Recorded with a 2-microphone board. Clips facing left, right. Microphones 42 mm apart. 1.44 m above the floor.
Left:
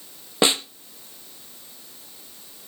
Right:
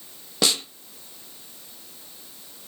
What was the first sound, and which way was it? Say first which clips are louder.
A snare drum: left 4 dB; 25° left (ahead or behind).